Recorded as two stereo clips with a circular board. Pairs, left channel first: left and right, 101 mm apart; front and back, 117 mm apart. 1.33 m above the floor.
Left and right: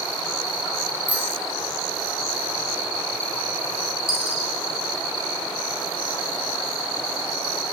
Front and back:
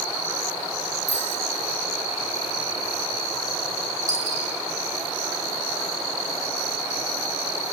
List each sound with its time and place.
1.1 s a bicycle bell: 165° right, 7 m
4.1 s a dropped coin: 125° right, 6.5 m